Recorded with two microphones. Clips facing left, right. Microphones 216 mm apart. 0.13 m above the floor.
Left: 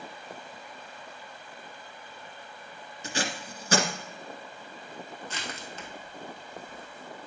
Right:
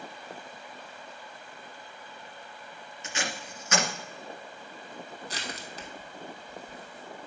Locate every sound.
3.0 s tape being pulled: 35° left (ahead or behind), 1.9 m
5.3 s crushing: 35° right (ahead or behind), 1.7 m